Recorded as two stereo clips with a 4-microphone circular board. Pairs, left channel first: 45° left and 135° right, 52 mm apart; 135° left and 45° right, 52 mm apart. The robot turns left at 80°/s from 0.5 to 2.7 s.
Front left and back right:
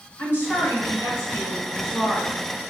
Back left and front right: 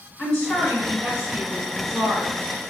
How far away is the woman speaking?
About 1.8 m.